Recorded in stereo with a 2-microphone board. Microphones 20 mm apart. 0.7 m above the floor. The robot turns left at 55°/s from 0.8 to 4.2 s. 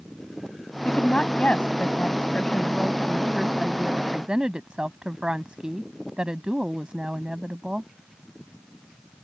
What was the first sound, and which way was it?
A woman speaking, 130° left.